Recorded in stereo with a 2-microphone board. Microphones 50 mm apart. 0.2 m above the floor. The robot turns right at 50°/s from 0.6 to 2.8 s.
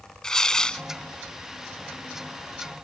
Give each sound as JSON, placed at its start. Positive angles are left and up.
{"t": 0.2, "sound": "tearing paper", "side_deg": 15}